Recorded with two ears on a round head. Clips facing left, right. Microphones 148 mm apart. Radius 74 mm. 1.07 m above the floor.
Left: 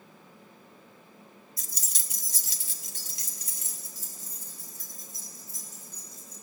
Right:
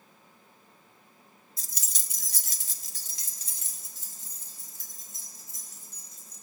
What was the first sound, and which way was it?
Keys jangling, 25° right (ahead or behind).